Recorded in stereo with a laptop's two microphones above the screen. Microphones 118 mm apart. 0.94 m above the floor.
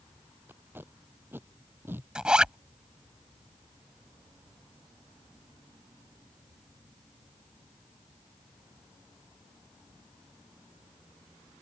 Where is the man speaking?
No man speaking in this recording.